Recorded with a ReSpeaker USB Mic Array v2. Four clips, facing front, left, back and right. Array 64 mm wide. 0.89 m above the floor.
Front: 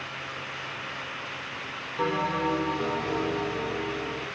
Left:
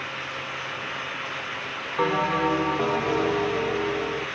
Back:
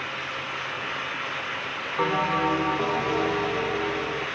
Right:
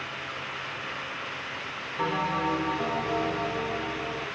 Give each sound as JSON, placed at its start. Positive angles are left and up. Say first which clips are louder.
{"t": 2.0, "sound": "a bell", "louder": "left 5 dB, back 3 dB", "azimuth_deg": 115, "distance_m": 1.4}